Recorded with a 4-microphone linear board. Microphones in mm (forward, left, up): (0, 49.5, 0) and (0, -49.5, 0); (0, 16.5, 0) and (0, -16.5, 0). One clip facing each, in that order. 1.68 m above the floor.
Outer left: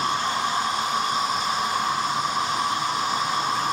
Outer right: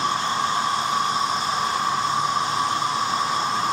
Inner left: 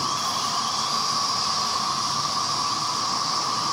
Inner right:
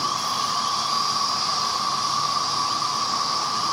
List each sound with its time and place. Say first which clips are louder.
0.0 s an insect: outer right 1 dB, inner right 1 dB; 30° right (ahead or behind), 0.8 m